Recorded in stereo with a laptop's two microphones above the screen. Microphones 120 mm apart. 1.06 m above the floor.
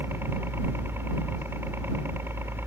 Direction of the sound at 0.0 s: 20° right (ahead or behind).